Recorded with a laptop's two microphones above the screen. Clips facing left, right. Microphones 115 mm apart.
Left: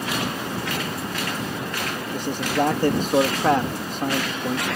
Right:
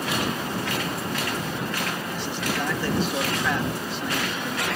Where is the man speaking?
45° left (ahead or behind).